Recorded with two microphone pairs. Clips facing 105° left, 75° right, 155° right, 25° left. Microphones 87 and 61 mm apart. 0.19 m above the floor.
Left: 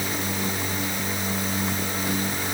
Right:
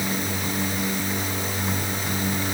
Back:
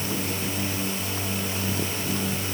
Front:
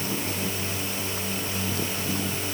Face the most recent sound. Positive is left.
No sound to turn to.